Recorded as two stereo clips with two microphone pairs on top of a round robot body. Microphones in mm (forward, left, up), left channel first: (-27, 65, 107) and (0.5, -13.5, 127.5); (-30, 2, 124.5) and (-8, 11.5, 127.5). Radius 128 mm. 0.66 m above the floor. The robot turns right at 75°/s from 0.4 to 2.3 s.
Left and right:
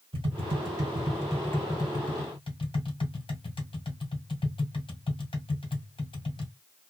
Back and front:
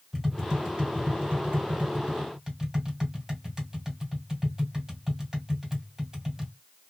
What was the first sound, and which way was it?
Tapping, 50° right.